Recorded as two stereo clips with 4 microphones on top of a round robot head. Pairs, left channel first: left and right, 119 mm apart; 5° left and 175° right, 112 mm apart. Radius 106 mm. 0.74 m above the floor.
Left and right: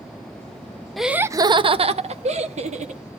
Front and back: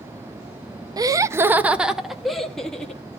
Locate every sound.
1.0 s laughter: straight behind, 0.6 m; by 3.0 s 80° right, 1.6 m